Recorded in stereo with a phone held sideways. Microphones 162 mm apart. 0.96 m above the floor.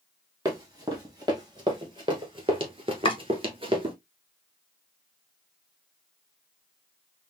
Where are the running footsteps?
25° right (ahead or behind), 1.9 m; by 4.0 s 35° right (ahead or behind), 1.1 m.